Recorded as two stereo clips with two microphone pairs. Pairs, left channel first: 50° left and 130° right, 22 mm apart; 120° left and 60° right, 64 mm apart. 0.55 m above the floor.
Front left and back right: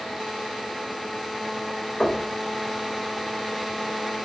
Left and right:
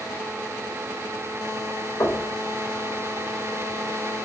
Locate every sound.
2.0 s knocking: 95° left, 2.5 m